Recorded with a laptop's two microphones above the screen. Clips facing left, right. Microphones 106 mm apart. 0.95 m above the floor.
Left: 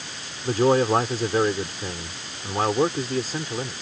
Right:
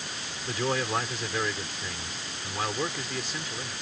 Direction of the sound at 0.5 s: 40° left (ahead or behind).